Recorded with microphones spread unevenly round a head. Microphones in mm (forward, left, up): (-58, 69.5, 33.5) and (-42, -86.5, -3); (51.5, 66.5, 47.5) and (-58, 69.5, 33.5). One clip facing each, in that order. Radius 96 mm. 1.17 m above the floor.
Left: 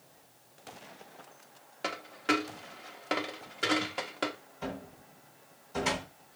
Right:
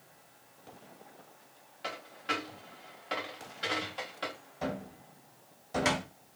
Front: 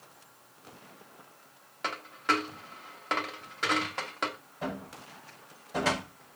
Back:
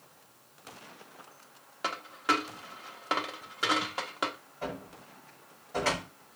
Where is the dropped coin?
95° left, 0.8 m.